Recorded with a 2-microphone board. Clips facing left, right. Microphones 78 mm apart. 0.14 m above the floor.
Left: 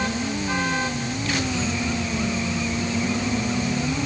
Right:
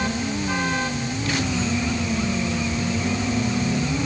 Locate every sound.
Only background noise.